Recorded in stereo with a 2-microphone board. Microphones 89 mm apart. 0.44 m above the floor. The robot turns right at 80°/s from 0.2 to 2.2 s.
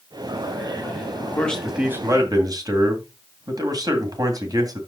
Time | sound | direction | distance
1.3 | a man speaking | 155° left | 2.5 m